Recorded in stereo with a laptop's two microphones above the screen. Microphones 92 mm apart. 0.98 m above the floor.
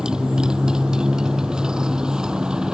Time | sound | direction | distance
0.0 | a motorcycle | 5° right (ahead or behind) | ?